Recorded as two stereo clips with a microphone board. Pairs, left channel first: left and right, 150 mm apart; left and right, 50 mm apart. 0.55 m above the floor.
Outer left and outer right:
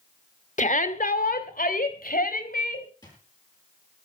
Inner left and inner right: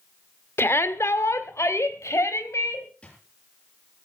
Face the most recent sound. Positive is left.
turn(degrees=25)  # may be behind; listen again after turning